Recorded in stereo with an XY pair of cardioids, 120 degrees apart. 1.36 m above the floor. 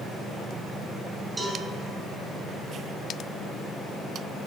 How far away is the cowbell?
About 2 m.